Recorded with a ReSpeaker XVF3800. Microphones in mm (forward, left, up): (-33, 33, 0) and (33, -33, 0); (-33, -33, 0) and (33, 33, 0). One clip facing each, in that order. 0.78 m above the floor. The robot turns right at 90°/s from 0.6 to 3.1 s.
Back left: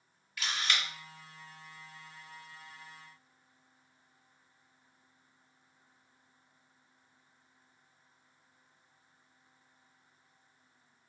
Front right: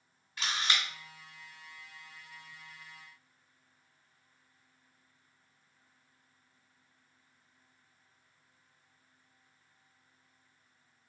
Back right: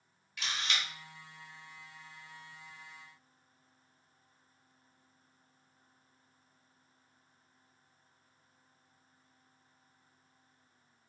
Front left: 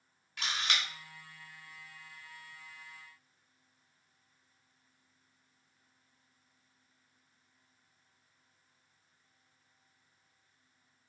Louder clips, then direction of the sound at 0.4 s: Front right 1 dB, front left 2 dB; 15° left.